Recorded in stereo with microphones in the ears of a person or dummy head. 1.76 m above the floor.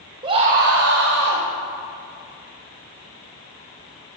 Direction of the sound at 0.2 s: 25° right (ahead or behind).